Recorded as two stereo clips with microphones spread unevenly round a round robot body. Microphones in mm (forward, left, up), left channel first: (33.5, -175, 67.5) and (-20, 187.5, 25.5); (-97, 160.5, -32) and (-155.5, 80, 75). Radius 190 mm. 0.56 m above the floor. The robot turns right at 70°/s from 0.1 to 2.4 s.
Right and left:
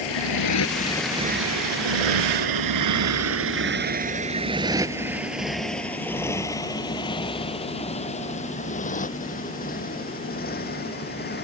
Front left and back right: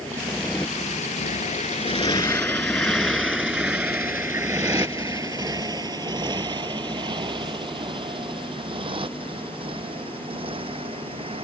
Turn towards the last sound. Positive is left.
turn(degrees=-145)